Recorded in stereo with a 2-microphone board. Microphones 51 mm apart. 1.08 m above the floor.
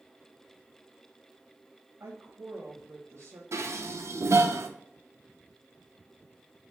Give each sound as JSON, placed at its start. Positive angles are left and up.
{"t": 2.0, "sound": "a woman speaking", "side_deg": -65, "distance_m": 0.8}
{"t": 3.5, "sound": "dishes clattering", "side_deg": -65, "distance_m": 0.5}